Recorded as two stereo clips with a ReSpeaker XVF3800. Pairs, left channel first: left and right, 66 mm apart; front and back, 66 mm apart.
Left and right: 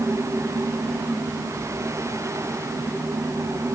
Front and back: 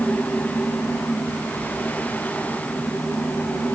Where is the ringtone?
No ringtone in this recording.